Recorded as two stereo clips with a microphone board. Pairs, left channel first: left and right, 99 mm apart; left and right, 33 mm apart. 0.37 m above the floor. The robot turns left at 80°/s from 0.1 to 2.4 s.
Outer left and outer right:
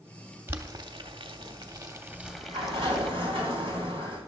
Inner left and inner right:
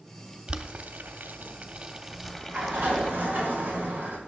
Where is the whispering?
I don't hear whispering.